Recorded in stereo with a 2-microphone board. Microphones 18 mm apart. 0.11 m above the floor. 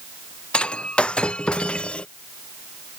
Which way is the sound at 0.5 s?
90° left.